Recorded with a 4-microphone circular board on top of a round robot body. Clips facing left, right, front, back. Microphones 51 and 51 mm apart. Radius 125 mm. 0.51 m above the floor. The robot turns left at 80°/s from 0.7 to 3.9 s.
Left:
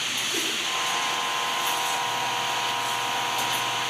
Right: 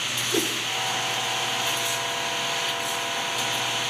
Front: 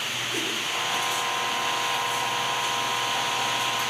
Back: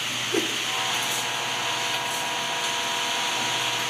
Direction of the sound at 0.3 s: 145° right.